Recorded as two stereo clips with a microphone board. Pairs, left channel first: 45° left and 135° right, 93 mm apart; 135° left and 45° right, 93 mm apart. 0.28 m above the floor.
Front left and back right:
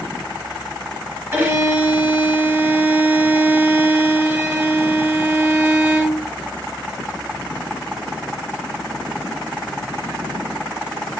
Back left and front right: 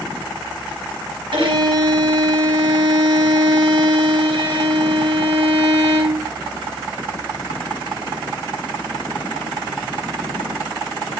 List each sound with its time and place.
1.3 s a violin: 70° right, 4 m